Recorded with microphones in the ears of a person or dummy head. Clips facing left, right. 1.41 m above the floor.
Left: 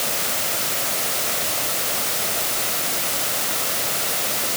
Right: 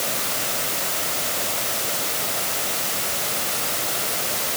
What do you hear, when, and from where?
Only background noise.